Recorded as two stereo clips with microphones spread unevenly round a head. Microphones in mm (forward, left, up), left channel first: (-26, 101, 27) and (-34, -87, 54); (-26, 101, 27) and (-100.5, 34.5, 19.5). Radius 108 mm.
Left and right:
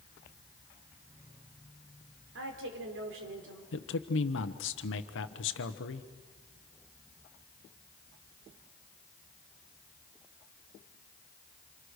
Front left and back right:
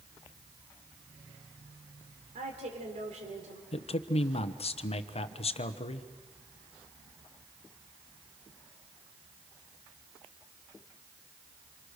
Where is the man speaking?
60° left, 1.1 m.